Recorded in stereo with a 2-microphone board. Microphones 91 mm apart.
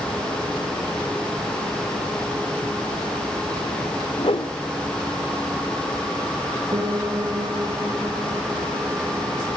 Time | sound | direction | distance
4.2 | a whoosh | 75° left (ahead or behind) | 1.6 m
6.7 | a piano | 45° right (ahead or behind) | 2.0 m